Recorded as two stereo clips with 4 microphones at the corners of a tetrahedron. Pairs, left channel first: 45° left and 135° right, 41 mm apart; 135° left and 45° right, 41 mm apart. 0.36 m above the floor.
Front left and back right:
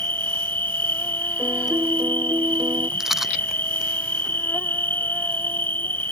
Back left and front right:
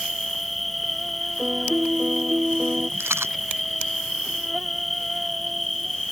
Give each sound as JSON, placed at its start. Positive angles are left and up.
{"t": 0.0, "sound": "an insect", "azimuth_deg": 50}
{"t": 1.4, "sound": "a piano", "azimuth_deg": -115}
{"t": 3.0, "sound": "a rattle", "azimuth_deg": -55}